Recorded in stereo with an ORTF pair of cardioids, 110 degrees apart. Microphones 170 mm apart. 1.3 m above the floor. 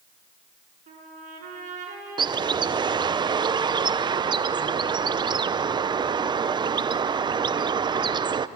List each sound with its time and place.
0.9 s a trumpet: 50° right, 7.5 m
2.2 s a bird: 25° right, 0.6 m